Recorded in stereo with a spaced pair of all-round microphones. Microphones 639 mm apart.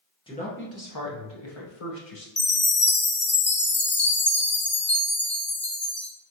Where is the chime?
20° left (ahead or behind), 0.6 m.